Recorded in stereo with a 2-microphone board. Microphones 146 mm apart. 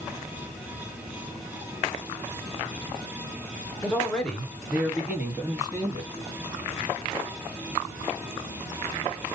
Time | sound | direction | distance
3.8 | a man speaking | 10° left (ahead or behind) | 1.9 m